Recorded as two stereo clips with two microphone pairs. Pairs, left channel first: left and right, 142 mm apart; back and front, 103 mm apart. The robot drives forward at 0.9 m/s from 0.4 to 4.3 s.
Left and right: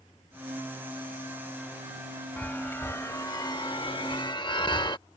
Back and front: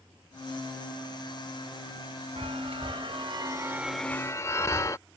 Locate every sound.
2.4 s a chime: 15° left; by 5.0 s 140° left